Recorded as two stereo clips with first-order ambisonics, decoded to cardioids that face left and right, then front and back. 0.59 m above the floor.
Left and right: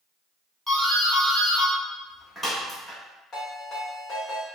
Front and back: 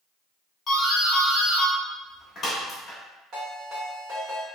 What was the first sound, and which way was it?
A doorbell, 15° left.